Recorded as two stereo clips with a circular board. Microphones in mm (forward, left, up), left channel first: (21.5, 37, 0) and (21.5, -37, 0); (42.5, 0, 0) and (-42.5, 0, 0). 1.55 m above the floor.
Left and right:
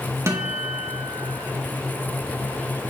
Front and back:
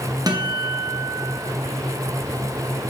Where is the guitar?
140° right, 1.9 m.